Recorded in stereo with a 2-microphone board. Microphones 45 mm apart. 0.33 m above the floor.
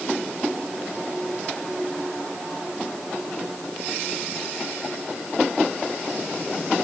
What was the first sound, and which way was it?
Only background noise.